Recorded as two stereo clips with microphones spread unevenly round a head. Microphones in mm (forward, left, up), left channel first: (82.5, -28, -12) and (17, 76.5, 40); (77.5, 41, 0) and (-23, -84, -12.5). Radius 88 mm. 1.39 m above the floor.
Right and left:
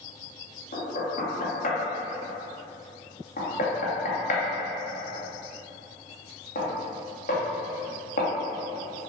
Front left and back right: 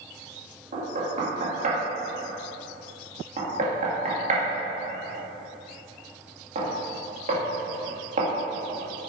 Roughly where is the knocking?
Right.